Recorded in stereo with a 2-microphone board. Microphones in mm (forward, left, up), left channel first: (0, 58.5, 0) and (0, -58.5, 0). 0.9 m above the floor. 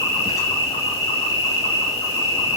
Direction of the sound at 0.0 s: 30° left (ahead or behind).